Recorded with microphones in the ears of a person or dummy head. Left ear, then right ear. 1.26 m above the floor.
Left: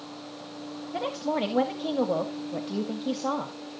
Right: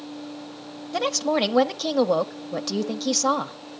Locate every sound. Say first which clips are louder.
0.9 s a woman speaking: right 6 dB; 80° right, 0.8 m